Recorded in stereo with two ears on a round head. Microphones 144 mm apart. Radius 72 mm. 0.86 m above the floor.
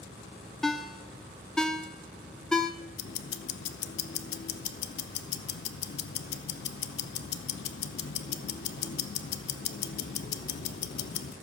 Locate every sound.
0.6 s a ringtone: 5° left (ahead or behind), 0.6 m
3.0 s ticking: 65° left (ahead or behind), 0.7 m